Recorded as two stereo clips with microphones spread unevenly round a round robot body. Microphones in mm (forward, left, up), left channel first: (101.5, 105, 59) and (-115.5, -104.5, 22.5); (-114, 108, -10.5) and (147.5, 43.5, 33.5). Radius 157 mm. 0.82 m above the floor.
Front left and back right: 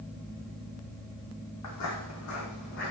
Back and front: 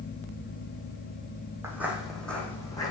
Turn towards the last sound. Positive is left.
turn(degrees=90)